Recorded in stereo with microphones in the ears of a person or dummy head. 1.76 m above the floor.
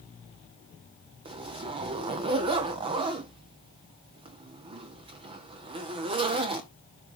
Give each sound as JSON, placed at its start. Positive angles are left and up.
{"t": 1.2, "sound": "a zipper", "side_deg": -25, "distance_m": 0.5}